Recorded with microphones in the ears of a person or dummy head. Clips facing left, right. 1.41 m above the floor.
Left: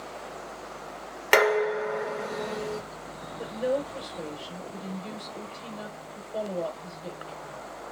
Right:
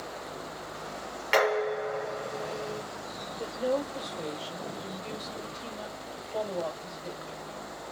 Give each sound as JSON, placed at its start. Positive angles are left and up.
{"t": 1.3, "sound": "dishes clattering", "side_deg": 65, "distance_m": 1.1}
{"t": 3.4, "sound": "a woman speaking", "side_deg": 20, "distance_m": 1.3}